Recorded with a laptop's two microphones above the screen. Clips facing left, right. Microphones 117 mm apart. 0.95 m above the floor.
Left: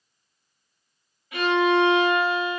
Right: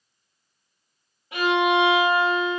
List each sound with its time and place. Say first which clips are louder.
1.3 s a violin: even; 30° right (ahead or behind), 1.7 m